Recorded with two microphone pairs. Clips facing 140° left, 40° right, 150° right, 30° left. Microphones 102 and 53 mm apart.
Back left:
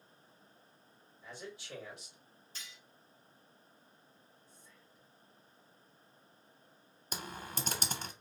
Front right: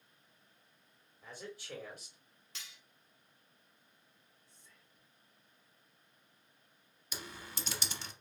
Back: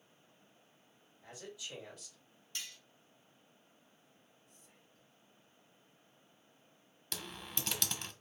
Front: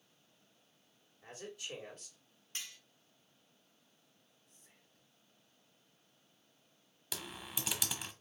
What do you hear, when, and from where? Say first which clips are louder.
1.2 s a man speaking: even, front 2 dB; straight ahead, 3 m
2.5 s cutlery clinking: back left 1 dB, even; 25° right, 1.7 m
4.5 s whispering: back left 5 dB, back 4 dB; 10° left, 2.5 m
7.1 s typing on a keyboard: back left 4 dB, even; 110° left, 0.6 m